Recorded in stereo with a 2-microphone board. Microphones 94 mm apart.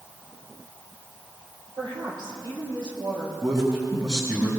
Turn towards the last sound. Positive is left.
turn(degrees=-45)  # may be behind; listen again after turning